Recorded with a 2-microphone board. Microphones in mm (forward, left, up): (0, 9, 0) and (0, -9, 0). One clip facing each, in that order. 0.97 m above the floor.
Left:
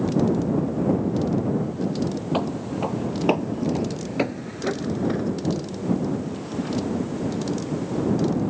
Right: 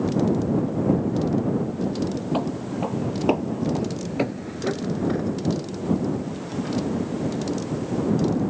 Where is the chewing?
No chewing in this recording.